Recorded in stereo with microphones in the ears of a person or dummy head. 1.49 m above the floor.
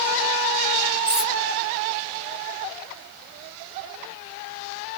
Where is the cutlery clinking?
5° right (ahead or behind), 0.9 m.